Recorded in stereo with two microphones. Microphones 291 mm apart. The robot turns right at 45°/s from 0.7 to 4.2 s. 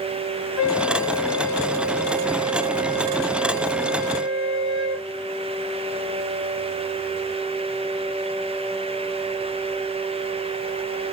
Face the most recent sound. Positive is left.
turn(degrees=65)